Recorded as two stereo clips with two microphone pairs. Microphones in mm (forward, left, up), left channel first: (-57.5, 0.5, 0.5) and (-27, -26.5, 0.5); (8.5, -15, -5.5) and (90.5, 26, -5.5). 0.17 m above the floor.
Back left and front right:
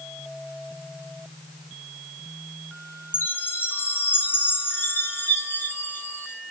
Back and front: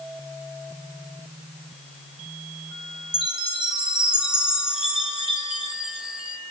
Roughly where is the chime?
Left.